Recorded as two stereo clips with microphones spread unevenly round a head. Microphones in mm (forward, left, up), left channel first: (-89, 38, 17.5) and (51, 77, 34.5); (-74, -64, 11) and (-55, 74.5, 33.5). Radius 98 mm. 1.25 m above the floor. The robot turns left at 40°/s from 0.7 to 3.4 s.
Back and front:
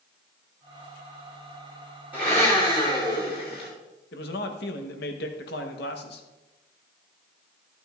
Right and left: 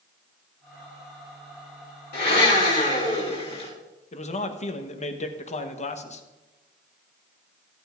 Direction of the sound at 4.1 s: 140° right.